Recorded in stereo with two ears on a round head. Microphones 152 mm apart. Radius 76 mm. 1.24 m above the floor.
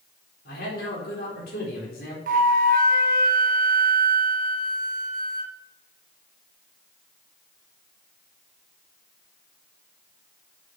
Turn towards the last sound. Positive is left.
turn(degrees=-50)  # may be behind; listen again after turning